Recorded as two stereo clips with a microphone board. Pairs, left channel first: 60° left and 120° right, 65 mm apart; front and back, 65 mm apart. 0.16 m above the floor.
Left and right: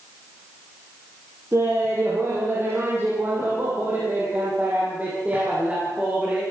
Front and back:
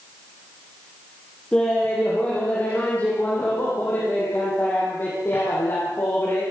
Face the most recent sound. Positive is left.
turn(degrees=-50)